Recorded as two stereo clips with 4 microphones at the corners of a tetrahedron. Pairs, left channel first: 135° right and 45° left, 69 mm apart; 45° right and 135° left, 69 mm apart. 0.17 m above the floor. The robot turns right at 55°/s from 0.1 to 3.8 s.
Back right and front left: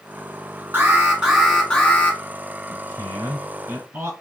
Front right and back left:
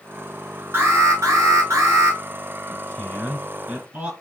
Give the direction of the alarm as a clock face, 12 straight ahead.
9 o'clock.